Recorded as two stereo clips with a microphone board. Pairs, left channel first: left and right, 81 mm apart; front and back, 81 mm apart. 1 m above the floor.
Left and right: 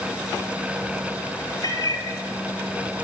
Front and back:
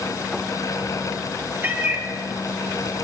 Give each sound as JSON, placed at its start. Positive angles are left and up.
{"t": 1.6, "sound": "a cat meowing", "azimuth_deg": 120, "distance_m": 3.0}